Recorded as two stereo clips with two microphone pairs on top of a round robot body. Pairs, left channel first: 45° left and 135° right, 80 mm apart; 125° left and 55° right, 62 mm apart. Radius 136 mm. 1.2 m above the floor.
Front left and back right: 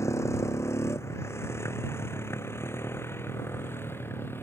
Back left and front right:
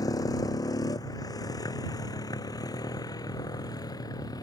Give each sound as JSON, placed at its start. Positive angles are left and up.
{"t": 0.0, "sound": "a motorcycle", "azimuth_deg": 105}